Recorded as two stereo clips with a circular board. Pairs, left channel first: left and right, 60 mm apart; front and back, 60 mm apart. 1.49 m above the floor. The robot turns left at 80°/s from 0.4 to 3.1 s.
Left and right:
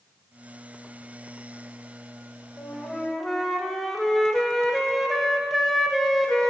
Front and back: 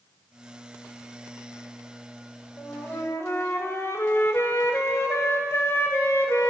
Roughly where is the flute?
Ahead left.